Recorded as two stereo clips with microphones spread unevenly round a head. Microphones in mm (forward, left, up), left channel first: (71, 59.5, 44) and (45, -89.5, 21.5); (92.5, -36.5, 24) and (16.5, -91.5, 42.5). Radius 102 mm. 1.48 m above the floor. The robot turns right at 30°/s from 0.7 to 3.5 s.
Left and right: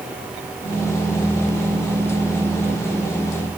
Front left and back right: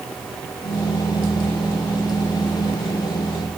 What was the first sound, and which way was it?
Only background noise.